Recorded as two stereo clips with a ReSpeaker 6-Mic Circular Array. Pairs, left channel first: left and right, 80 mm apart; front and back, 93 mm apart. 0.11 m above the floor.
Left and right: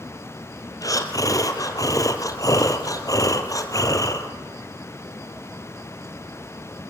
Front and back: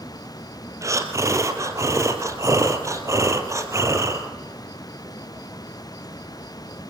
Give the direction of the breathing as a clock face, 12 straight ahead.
8 o'clock.